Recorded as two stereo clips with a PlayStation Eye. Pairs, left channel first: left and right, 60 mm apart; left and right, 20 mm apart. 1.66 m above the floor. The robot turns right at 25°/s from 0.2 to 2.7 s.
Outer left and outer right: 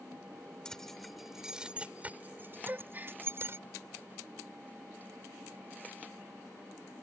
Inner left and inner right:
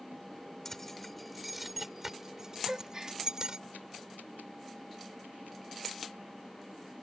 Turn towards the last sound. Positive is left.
turn(degrees=-30)  # may be behind; listen again after turning